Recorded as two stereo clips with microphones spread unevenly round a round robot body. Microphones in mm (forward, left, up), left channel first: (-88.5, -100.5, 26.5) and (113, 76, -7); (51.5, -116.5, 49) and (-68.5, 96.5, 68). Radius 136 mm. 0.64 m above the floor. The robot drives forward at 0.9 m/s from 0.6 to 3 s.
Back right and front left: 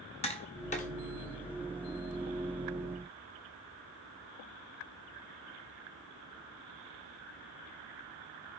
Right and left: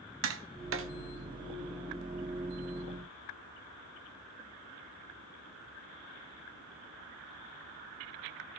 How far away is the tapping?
About 1.1 m.